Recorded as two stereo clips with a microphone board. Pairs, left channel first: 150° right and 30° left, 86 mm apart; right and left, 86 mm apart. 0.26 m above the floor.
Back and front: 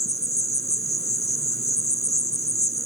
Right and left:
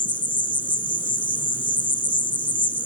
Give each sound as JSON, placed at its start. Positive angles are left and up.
{"t": 0.0, "sound": "an insect", "azimuth_deg": -105}